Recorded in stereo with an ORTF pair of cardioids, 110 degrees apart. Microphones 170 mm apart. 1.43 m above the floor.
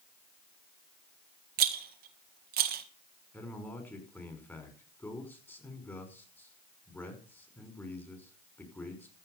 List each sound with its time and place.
1.6 s a rattle: 70° right, 1.9 m
3.3 s a man speaking: 10° left, 5 m